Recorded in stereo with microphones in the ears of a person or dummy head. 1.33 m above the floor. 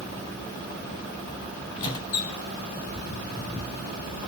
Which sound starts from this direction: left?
A squeak, at 1.8 s.